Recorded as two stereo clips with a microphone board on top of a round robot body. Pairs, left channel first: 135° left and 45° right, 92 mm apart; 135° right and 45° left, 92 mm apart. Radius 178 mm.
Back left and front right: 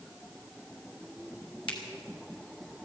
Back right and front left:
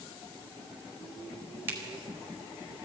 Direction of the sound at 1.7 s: 110° left.